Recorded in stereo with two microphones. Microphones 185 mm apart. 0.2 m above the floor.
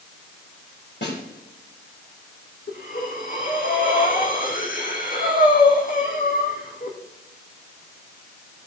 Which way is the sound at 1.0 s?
75° left (ahead or behind).